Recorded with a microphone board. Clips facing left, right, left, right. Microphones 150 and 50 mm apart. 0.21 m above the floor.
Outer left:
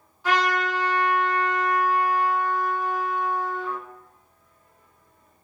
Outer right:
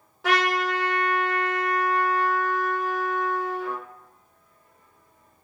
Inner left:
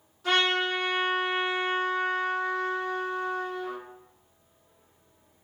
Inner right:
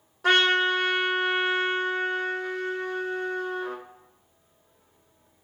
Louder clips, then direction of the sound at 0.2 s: Even, inner right 4 dB; 80° right.